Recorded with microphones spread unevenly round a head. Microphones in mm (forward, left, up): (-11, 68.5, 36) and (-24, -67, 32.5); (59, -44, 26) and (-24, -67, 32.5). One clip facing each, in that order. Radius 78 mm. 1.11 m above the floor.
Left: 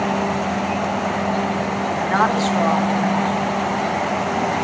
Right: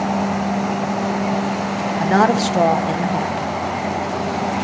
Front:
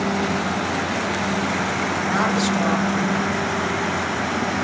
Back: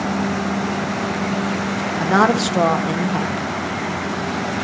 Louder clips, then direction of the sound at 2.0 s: Right 4 dB, back 7 dB; 140° right.